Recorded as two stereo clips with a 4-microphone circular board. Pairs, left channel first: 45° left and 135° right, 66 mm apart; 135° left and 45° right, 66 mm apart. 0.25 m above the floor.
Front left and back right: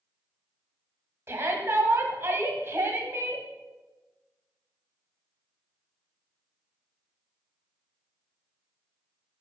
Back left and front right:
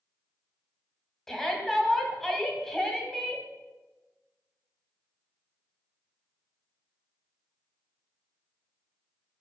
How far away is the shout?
About 1.8 m.